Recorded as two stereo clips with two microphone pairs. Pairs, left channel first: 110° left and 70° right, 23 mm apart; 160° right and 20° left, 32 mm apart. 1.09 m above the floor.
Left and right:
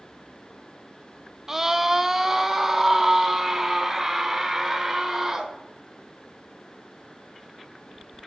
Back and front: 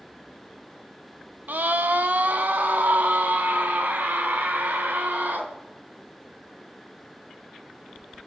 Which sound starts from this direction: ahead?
A scream, at 1.5 s.